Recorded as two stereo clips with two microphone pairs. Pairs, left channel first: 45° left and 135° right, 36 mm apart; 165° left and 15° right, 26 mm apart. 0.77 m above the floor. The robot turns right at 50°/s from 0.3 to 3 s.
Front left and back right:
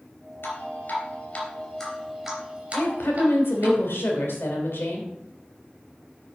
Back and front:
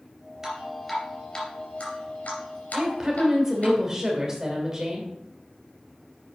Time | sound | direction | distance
0.4 | dripping | 50° left | 3 m
2.7 | a woman speaking | 40° left | 2.5 m